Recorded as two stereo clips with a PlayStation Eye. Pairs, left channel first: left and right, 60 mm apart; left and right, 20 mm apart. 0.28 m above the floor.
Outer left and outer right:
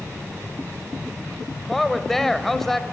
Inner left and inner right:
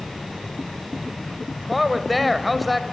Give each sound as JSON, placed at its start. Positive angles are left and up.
{"t": 1.7, "sound": "a woman speaking", "side_deg": 5, "distance_m": 1.0}